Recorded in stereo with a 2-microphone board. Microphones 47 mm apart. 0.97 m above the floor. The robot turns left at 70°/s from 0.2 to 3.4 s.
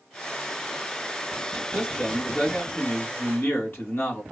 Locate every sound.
1.7 s a man speaking: 150° right, 1.5 m; by 4.2 s 95° left, 1.5 m